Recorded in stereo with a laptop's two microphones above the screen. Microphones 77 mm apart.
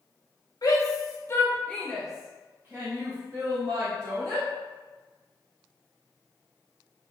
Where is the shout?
50° left (ahead or behind), 1.1 m; by 4.5 s 55° right (ahead or behind), 2 m.